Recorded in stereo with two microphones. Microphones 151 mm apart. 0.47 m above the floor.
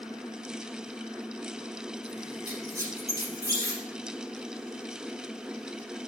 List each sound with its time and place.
2.5 s a squeak: 20° right (ahead or behind), 3.5 m